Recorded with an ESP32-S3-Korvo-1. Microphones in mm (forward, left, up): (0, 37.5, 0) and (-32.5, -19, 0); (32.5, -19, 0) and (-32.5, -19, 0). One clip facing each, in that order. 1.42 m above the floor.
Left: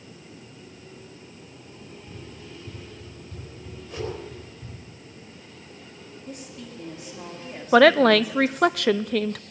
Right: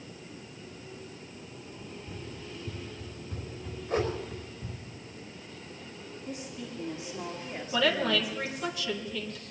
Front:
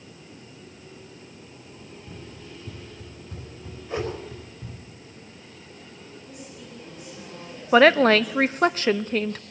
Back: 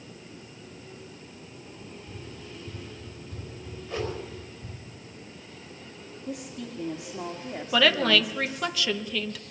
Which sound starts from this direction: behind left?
A woman speaking, at 6.3 s.